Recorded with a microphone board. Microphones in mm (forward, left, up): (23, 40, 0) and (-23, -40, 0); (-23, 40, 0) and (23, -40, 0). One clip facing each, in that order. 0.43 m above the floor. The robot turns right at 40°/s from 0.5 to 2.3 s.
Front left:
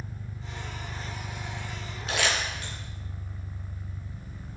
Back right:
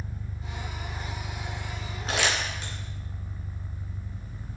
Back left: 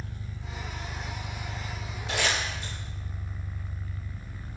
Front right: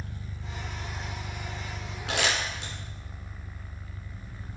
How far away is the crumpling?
About 3 m.